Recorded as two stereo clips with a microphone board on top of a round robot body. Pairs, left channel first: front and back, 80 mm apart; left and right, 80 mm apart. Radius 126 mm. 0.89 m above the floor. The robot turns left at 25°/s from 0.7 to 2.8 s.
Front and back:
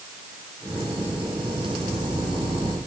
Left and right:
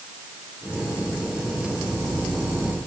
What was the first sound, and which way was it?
Only background noise.